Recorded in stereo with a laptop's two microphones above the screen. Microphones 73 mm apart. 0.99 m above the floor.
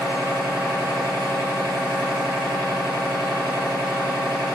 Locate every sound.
0.0 s a machine running: 15° right (ahead or behind), 1.4 m